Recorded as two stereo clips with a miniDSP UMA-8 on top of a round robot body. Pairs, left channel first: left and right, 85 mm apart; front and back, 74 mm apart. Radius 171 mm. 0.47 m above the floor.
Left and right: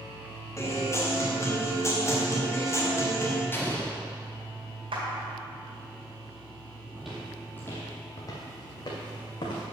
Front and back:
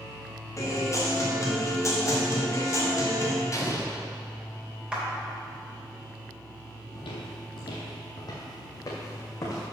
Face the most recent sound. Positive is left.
turn(degrees=55)